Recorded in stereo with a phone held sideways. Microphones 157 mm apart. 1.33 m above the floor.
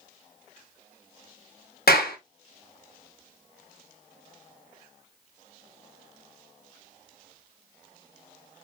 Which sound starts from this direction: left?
A clap, at 1.9 s.